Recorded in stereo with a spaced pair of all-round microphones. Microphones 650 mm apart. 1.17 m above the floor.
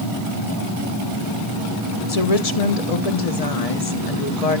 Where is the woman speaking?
65° left (ahead or behind), 1.3 m.